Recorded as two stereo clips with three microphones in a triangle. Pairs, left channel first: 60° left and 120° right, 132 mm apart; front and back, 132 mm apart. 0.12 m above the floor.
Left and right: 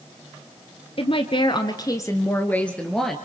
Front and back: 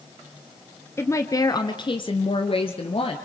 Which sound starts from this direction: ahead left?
A woman speaking, at 1.0 s.